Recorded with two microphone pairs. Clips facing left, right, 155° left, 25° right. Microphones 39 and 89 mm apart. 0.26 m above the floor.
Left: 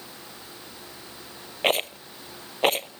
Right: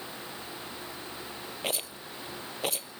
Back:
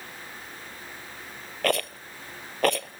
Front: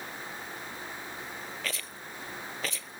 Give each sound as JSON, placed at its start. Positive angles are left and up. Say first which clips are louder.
{"t": 1.6, "sound": "a rattle", "louder": "left 12 dB, back 12 dB", "azimuth_deg": 130}